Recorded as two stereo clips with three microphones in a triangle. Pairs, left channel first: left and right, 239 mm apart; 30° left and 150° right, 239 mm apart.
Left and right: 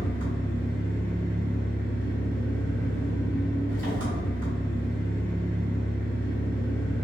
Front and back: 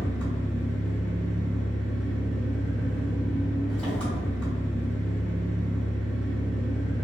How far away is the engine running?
About 1.9 m.